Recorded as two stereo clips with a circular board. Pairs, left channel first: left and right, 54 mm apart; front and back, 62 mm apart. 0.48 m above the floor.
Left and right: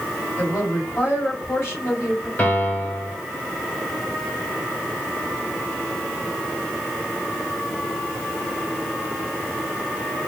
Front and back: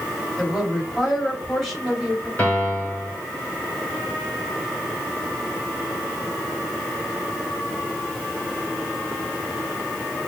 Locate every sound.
0.4 s a woman speaking: 85° left, 2 m
2.4 s a piano: 55° left, 1.6 m